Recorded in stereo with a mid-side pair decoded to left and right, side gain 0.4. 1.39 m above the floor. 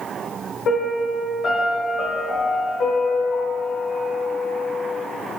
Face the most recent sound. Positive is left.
turn(degrees=70)